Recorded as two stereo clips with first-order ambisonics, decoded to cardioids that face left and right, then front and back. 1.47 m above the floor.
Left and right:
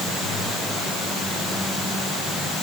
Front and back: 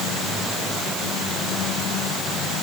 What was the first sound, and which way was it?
Only background noise.